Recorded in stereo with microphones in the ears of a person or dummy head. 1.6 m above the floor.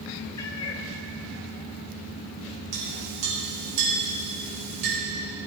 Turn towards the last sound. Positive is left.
turn(degrees=-65)  # may be behind; listen again after turning